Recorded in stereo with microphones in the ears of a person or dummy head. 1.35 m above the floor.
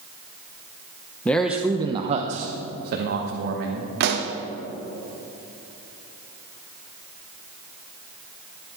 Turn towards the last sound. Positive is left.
turn(degrees=-60)  # may be behind; listen again after turning